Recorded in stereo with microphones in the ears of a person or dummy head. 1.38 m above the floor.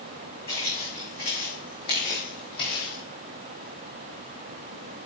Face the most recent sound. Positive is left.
turn(degrees=25)  # may be behind; listen again after turning